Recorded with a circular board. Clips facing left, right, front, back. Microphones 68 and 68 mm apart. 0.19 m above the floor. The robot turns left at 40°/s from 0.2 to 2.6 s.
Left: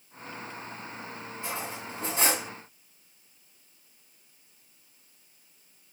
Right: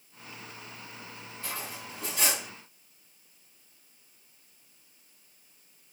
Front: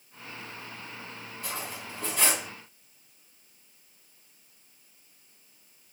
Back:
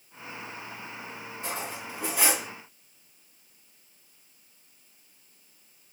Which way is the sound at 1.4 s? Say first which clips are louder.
Left 3 dB, back 3 dB; 140° left.